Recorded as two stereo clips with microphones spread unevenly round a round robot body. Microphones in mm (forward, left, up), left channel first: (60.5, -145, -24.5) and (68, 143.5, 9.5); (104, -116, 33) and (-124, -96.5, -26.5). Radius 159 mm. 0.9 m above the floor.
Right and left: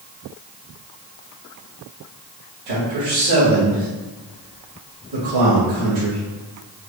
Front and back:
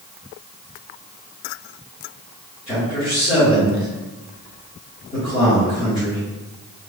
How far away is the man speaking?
About 1.9 m.